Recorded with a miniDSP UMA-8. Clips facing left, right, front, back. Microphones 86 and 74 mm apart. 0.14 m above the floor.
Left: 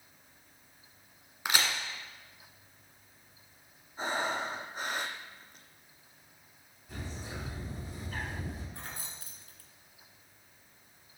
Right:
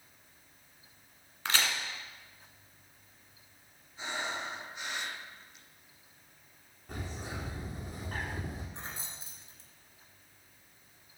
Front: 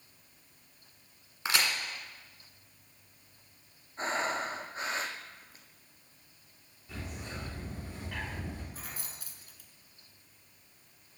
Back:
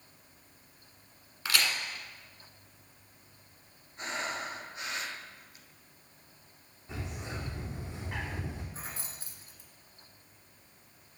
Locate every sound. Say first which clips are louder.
1.4 s a crack: left 1 dB, front 1 dB; 30° left, 1.6 m
4.0 s breathing: left 5 dB, front 4 dB; 50° left, 1.1 m
6.9 s a bird: right 1 dB, back 2 dB; 120° right, 4.5 m
8.7 s keys jangling: right 1 dB, back 2 dB; 140° right, 1.4 m